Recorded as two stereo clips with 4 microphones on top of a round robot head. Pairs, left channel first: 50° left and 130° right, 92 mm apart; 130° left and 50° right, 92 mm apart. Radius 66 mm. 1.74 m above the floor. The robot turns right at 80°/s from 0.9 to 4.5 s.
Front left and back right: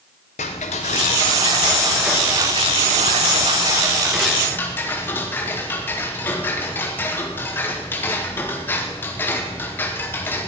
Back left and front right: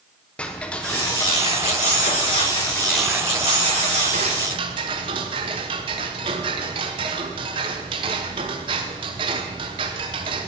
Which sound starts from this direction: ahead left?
Ticking, at 0.4 s.